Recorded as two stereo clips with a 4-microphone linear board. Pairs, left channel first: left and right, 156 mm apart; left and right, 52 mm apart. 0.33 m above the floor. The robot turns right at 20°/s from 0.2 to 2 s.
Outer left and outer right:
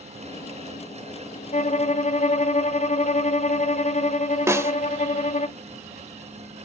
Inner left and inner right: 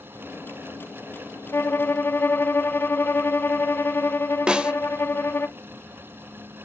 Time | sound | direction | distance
1.5 | a violin | 45° left (ahead or behind) | 0.5 m
4.5 | a snare drum | 15° right (ahead or behind) | 0.7 m